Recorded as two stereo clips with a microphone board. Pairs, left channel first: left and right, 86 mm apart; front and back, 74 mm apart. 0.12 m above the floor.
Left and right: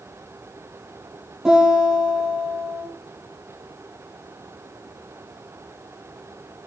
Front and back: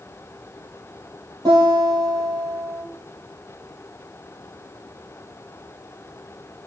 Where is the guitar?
175° right, 1.6 m.